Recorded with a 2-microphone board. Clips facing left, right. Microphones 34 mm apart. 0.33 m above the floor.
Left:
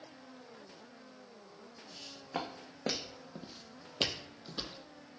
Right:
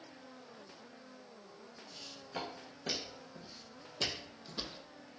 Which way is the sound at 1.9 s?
55° left (ahead or behind).